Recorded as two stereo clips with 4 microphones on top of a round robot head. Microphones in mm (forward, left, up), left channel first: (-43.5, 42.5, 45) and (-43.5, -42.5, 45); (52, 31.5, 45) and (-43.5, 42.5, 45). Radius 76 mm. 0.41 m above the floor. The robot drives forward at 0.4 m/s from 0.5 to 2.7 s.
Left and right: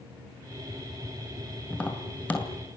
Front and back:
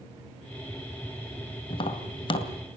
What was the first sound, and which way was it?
Tapping, 15° left.